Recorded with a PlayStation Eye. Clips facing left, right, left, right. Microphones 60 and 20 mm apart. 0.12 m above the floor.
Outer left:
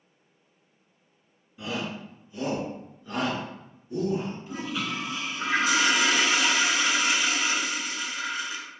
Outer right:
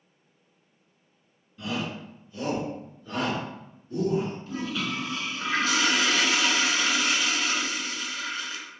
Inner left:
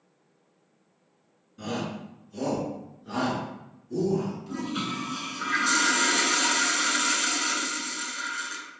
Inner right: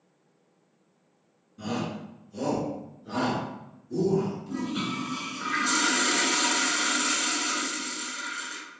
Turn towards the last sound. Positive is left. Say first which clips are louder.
# outer right 1 dB, even
turn(degrees=15)  # may be behind; listen again after turning